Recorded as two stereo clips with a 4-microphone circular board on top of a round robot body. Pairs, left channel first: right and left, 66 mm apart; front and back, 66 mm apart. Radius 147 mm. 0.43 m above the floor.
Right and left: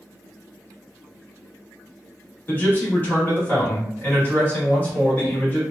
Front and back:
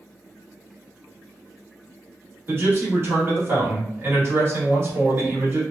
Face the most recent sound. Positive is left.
turn(degrees=-145)